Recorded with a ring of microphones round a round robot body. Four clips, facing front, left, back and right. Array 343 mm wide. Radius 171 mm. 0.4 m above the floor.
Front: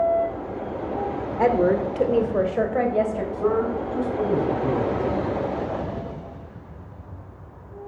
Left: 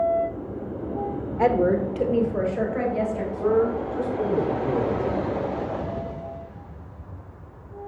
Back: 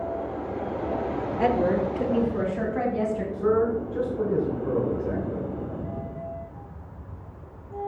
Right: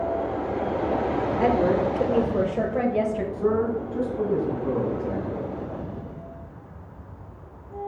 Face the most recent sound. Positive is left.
turn(degrees=5)